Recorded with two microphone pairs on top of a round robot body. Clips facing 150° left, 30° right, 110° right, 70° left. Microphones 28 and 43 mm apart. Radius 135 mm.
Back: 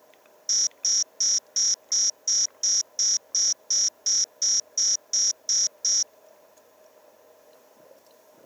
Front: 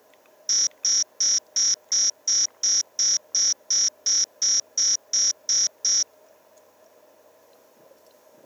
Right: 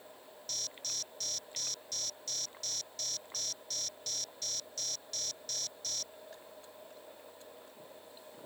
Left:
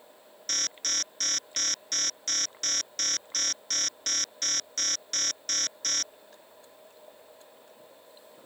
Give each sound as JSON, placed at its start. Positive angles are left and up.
{"t": 0.5, "sound": "an alarm", "azimuth_deg": 35}